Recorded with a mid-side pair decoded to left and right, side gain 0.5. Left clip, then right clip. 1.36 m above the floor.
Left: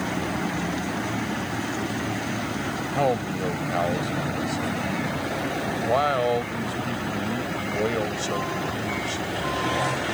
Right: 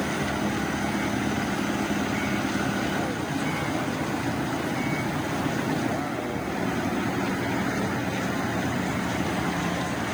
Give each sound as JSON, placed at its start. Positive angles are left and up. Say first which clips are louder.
{"t": 2.9, "sound": "a man speaking", "louder": "left 5 dB", "azimuth_deg": 70}